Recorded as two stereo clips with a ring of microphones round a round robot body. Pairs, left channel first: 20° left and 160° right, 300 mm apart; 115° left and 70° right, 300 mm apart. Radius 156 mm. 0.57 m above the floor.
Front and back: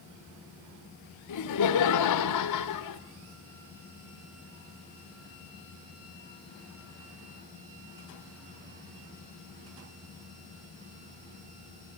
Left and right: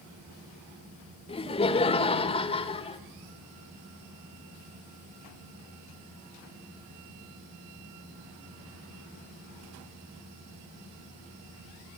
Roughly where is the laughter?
Ahead left.